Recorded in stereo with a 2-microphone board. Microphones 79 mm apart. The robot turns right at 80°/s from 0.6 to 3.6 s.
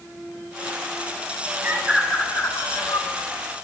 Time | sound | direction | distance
1.6 | a bird | 25° right (ahead or behind) | 2 m